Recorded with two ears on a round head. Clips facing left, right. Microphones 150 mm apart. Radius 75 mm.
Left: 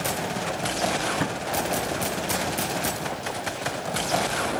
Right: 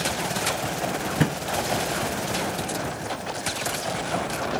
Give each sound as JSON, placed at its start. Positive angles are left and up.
{"t": 1.2, "sound": "a thud", "side_deg": -25, "distance_m": 3.0}